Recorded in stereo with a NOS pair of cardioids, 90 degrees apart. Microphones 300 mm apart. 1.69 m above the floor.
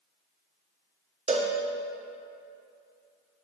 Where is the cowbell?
20° right, 0.9 m.